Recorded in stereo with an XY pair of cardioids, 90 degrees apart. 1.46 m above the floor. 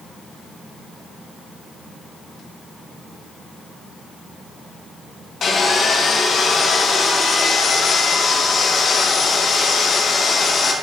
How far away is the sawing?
About 1.4 m.